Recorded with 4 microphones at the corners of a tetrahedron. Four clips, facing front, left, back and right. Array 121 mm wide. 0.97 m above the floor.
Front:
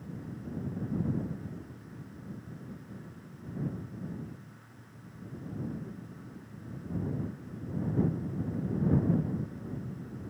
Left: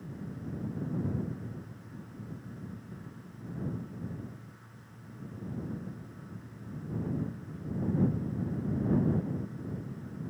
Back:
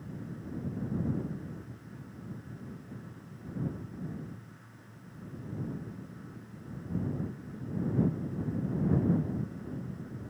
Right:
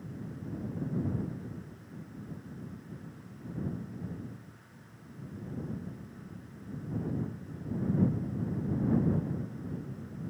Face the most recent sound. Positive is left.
No sound to turn to.